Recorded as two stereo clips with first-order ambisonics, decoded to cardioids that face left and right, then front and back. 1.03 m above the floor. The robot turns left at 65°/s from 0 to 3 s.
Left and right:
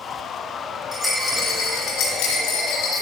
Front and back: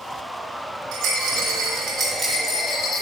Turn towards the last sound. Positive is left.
turn(degrees=60)